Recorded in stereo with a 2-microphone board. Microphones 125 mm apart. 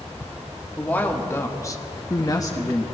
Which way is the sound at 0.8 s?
15° left (ahead or behind).